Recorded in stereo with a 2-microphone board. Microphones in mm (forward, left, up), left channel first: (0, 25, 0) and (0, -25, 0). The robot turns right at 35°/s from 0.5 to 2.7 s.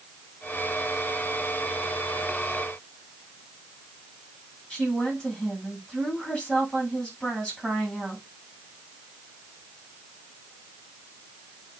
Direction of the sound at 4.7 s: 15° left (ahead or behind).